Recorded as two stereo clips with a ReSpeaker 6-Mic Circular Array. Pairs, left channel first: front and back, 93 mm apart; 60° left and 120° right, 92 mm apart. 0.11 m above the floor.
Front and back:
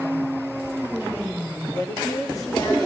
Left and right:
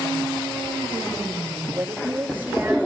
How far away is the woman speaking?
About 6 m.